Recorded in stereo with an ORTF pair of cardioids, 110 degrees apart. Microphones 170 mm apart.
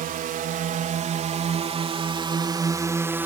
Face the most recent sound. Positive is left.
turn(degrees=-10)